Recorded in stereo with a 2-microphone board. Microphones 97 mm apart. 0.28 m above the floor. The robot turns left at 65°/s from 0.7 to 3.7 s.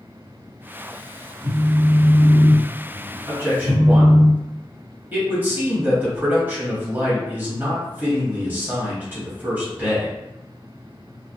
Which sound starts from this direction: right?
A man speaking, at 3.3 s.